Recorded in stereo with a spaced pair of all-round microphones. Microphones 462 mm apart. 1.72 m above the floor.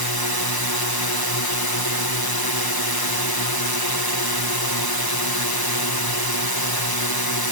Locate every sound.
0.0 s a drone: 50° left (ahead or behind)